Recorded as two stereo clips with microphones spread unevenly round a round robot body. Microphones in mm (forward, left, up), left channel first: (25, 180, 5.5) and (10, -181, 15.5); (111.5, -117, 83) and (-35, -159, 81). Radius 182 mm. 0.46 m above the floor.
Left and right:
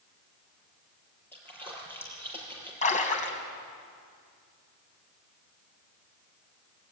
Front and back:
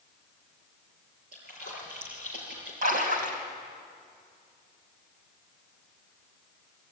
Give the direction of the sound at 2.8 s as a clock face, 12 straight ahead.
7 o'clock.